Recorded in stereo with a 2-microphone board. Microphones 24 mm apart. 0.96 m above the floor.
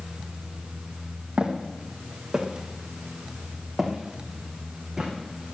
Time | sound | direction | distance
1.4 | footsteps | 40° right (ahead or behind) | 2 m